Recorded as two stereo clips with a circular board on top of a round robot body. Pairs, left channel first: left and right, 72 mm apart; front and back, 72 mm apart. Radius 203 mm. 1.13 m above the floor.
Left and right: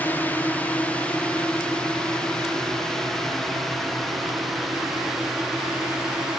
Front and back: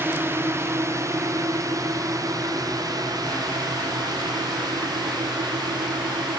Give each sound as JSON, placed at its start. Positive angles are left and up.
{"t": 0.0, "sound": "a drone", "azimuth_deg": 140}